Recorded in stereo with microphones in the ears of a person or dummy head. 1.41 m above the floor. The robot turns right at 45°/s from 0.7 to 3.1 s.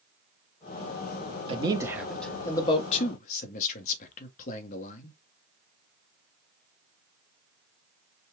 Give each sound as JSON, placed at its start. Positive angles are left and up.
{"t": 1.5, "sound": "a man speaking", "azimuth_deg": -30, "distance_m": 1.2}